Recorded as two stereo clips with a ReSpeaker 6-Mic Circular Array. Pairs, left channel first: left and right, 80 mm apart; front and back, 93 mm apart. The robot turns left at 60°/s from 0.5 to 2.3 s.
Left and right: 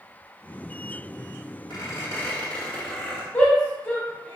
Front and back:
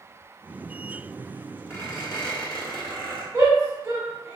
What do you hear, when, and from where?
1.7 s a squeak: 60° left, 1.1 m; by 3.2 s 25° left, 1.1 m
3.3 s a shout: 145° left, 0.9 m